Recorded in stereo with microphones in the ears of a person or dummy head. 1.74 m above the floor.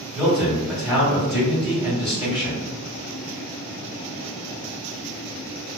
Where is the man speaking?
5° right (ahead or behind), 1.9 m.